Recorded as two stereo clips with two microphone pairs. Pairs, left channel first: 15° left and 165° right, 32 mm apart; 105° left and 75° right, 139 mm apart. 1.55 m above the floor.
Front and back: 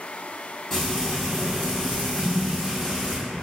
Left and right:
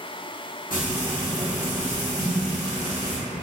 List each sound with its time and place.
0.7 s frying: 95° left, 1.7 m
2.2 s a snare drum: 165° left, 0.9 m